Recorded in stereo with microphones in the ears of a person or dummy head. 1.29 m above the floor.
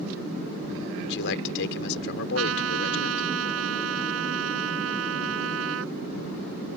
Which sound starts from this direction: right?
A trumpet, at 2.4 s.